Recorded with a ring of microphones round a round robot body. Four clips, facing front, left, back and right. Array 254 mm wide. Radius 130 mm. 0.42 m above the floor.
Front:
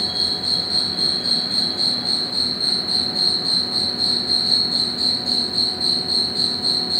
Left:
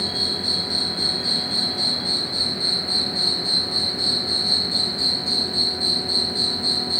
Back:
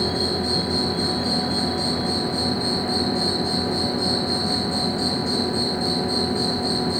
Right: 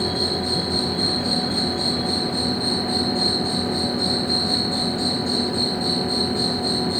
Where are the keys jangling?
I don't hear keys jangling.